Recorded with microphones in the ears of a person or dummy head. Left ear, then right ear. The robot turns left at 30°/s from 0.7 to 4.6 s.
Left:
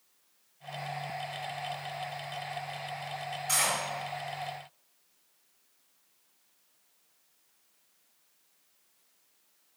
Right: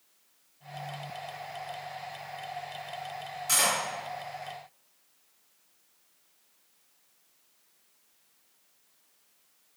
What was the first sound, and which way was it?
Cutlery clinking, 15° right (ahead or behind).